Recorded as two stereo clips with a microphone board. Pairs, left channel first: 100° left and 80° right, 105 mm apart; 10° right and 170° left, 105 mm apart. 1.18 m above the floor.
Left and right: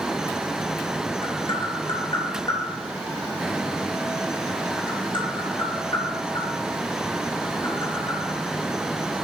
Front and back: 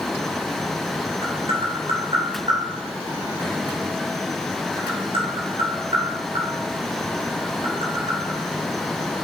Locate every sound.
1.2 s tapping: 140° left, 4 m